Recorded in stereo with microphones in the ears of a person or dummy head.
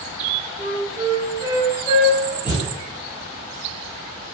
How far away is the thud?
About 1.2 m.